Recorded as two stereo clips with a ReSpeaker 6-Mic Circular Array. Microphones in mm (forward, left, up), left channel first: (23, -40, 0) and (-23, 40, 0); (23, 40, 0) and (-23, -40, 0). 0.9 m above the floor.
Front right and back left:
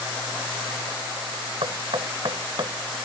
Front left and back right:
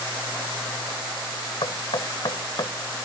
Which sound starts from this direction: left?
Knocking, at 1.6 s.